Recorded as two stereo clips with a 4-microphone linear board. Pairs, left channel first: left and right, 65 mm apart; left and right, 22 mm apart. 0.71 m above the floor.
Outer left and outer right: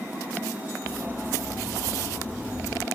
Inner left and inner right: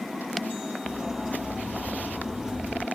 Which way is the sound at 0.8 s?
30° right (ahead or behind).